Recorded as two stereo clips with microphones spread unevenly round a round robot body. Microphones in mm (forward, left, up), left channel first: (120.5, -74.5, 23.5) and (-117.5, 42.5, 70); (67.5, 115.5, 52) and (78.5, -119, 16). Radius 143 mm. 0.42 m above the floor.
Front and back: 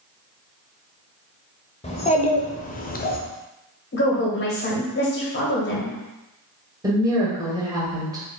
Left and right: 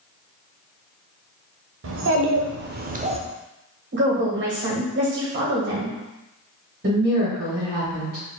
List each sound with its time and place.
1.8 s a child speaking: 90° right, 1.1 m; by 3.2 s 40° right, 0.6 m
3.9 s a woman speaking: 65° right, 1.7 m
6.8 s a woman speaking: 125° right, 1.8 m